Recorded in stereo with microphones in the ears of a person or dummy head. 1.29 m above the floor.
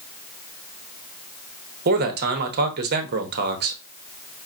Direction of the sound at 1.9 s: 55° right (ahead or behind).